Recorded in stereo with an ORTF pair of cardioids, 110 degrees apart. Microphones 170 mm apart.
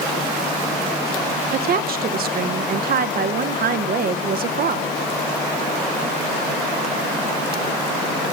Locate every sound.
1.5 s a woman speaking: 65° right, 1.0 m